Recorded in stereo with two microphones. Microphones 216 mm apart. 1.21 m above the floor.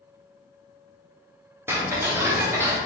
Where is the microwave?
I don't hear a microwave.